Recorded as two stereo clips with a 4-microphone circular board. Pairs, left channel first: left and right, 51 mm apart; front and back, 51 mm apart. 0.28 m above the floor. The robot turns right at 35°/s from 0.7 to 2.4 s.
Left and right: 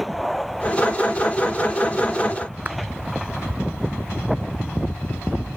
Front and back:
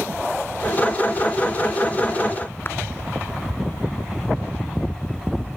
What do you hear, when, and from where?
2.6 s a clap: 40° right